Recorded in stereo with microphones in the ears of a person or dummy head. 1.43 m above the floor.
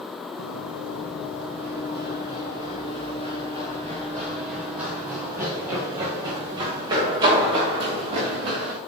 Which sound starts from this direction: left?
Running footsteps, at 0.4 s.